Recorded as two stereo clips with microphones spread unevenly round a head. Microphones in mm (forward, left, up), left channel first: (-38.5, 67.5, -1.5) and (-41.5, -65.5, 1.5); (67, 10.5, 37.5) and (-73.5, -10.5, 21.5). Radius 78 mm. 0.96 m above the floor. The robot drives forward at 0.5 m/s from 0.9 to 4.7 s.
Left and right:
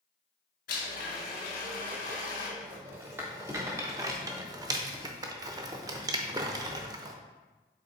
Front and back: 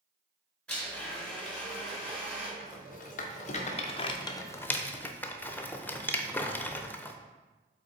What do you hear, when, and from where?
0.7 s a blender: 90° left, 3 m; by 2.5 s 105° left, 3 m
2.6 s a rattle: 15° right, 1.3 m; by 7.2 s 70° right, 0.7 m